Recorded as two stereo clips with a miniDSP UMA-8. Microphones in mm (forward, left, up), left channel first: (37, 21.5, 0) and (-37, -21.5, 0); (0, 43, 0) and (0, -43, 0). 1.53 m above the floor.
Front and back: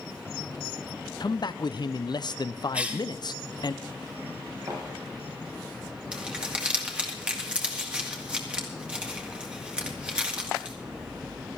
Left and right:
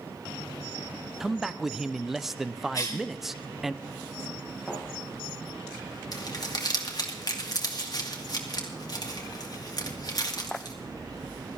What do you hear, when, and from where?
1.2 s a man speaking: 5° right, 0.5 m
2.7 s a cough: 135° left, 3 m
4.7 s a thud: 170° right, 7.5 m
6.1 s crumpling: 130° left, 2.0 m